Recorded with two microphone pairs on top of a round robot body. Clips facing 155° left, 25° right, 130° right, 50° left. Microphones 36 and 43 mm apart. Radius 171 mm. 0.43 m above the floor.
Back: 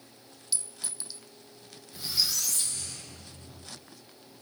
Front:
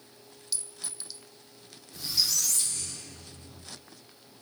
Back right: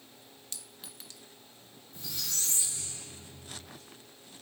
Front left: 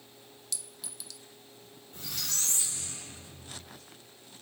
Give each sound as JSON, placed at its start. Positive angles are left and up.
{"t": 0.5, "sound": "a clink", "azimuth_deg": -130, "distance_m": 0.8}
{"t": 1.9, "sound": "a squeak", "azimuth_deg": 90, "distance_m": 1.4}